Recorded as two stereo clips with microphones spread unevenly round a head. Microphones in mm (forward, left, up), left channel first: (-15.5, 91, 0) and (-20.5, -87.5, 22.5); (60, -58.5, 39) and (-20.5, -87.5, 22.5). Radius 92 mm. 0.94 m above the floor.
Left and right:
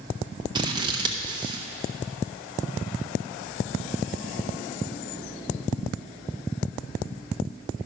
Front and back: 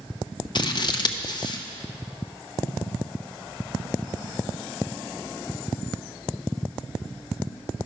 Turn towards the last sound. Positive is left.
turn(degrees=-20)